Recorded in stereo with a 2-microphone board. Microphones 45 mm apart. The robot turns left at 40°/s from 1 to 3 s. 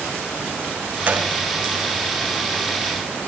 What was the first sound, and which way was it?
A gunshot, 40° right (ahead or behind).